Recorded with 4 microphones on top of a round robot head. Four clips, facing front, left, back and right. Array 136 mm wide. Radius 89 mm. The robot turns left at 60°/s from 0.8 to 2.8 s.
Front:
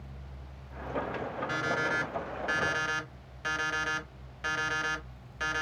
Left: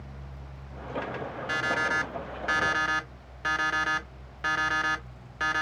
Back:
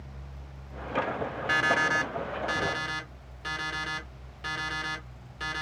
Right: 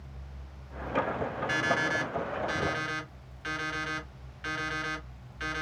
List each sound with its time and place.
1.5 s an alarm clock: 160° left, 0.7 m; by 5.6 s 80° left, 0.7 m